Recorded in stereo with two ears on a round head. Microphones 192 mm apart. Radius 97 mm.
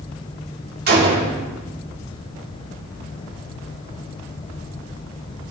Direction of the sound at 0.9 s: 50° right (ahead or behind).